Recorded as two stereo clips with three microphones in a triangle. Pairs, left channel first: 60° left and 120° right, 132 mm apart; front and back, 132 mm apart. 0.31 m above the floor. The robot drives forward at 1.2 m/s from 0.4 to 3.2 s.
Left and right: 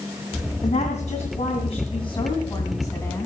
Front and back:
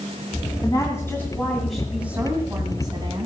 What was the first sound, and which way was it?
A woman speaking, 60° left.